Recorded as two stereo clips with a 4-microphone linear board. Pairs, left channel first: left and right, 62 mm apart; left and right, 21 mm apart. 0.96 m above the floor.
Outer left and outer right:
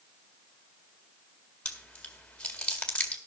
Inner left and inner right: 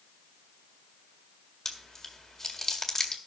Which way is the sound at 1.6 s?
20° left (ahead or behind).